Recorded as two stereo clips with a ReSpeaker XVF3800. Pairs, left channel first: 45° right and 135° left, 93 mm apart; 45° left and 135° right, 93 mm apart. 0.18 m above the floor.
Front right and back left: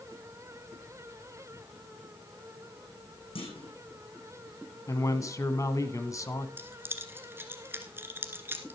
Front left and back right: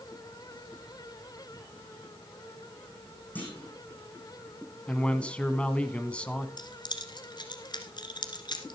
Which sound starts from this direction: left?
Keys jangling, at 6.6 s.